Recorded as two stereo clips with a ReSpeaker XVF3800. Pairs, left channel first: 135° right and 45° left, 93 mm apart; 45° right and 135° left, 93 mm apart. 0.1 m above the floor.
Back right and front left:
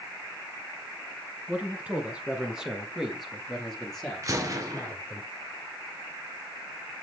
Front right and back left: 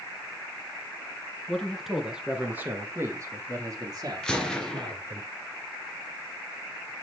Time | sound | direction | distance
1.5 | a man speaking | 20° left | 1.5 m
4.2 | a gunshot | 35° left | 1.4 m